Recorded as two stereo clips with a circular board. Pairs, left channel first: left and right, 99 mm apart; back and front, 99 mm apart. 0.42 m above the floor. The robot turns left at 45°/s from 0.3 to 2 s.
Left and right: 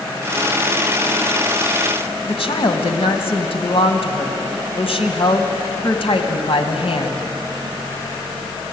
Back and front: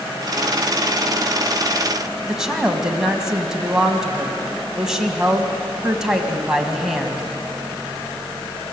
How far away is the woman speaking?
About 2.5 m.